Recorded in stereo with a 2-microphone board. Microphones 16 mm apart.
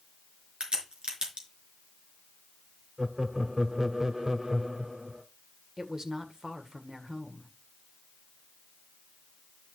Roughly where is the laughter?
Right.